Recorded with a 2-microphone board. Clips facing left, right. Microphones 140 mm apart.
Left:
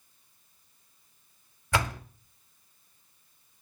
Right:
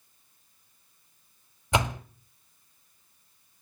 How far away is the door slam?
About 1.0 m.